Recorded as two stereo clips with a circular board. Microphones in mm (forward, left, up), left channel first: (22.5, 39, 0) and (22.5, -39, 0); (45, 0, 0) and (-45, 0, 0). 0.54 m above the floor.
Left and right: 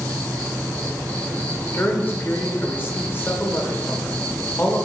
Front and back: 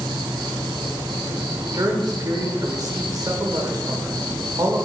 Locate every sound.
0.0 s an insect: 165° left, 2.5 m
1.7 s a man speaking: 145° left, 1.4 m